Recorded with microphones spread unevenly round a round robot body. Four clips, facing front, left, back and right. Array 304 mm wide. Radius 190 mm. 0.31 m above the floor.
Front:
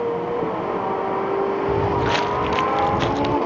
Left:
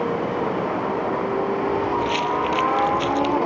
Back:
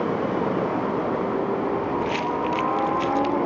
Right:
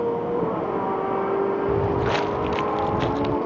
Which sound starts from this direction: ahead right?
Footsteps, at 1.7 s.